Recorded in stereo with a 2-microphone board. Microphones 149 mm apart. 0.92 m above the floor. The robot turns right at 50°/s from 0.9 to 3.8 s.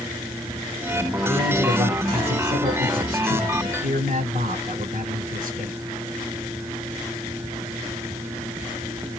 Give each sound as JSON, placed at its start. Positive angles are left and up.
{"t": 1.2, "sound": "a man speaking", "azimuth_deg": 165, "distance_m": 5.0}